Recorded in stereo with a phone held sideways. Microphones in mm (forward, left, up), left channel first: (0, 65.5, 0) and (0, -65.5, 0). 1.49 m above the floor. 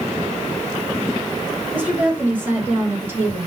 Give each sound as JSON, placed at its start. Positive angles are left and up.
{"t": 1.7, "sound": "a woman speaking", "side_deg": -10, "distance_m": 7.5}